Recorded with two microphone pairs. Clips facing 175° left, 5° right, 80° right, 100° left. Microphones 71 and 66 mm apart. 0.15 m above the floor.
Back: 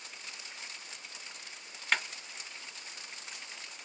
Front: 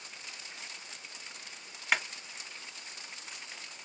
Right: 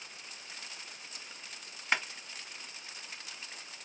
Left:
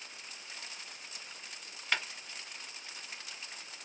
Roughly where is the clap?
Right.